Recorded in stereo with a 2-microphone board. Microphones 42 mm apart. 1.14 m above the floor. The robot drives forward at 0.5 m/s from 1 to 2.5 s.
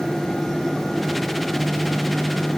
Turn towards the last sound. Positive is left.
No sound to turn to.